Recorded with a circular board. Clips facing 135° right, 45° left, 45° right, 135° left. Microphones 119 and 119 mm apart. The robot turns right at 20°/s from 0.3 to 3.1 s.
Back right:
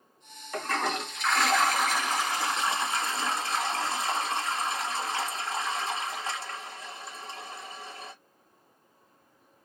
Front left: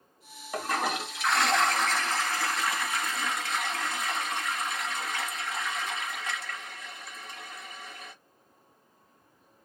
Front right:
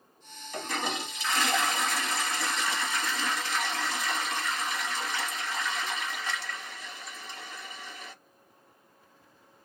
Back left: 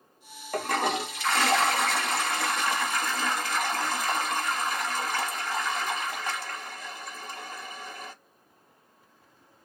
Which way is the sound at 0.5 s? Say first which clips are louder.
Even, back left 6 dB; 120° left.